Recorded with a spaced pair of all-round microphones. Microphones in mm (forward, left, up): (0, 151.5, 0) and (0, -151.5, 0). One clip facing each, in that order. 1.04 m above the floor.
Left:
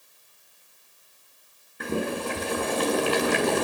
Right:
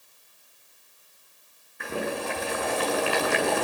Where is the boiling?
45° left (ahead or behind), 7.5 m.